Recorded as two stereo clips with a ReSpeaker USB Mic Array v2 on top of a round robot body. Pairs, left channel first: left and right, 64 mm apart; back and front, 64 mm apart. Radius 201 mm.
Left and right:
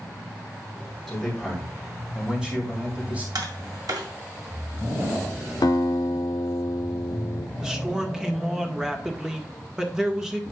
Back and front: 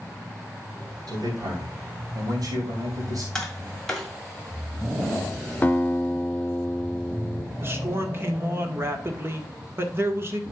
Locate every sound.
1.1 s a man speaking: straight ahead, 3.5 m; by 3.2 s 25° right, 3 m
3.4 s tapping: 100° right, 2 m
5.6 s a guitar: 110° left, 0.7 m
7.6 s a man speaking: 15° right, 1.7 m